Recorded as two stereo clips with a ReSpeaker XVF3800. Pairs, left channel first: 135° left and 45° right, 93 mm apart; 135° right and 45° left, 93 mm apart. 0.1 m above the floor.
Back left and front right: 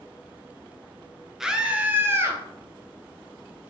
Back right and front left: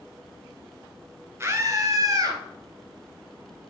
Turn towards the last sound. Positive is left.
turn(degrees=10)